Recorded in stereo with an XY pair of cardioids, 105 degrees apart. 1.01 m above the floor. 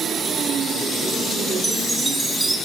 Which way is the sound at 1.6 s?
20° right.